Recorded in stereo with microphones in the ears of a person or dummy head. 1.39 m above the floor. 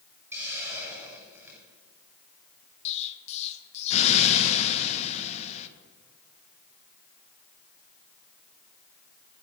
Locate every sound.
0.3 s a hiss: 10° right (ahead or behind), 7 m
2.9 s an explosion: 40° left (ahead or behind), 1.6 m